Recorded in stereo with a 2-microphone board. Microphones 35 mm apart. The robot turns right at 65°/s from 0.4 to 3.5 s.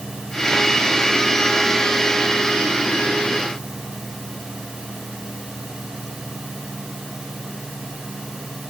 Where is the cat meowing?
No cat meowing in this recording.